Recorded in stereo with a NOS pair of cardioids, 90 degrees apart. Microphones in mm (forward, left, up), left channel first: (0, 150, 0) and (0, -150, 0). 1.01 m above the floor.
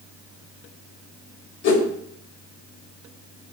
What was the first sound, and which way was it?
A whoosh, 70° left.